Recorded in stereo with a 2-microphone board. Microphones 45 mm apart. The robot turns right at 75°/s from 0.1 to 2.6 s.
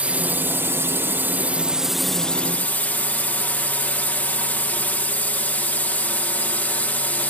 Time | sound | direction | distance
0.0 | a drone | 145° right | ?